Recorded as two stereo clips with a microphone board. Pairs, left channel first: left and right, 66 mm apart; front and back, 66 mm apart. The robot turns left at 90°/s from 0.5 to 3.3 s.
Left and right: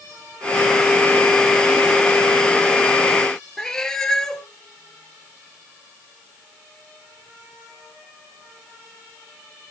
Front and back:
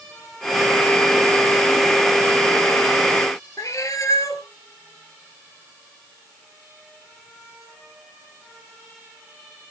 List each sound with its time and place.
3.6 s a cat meowing: 10° left, 1.3 m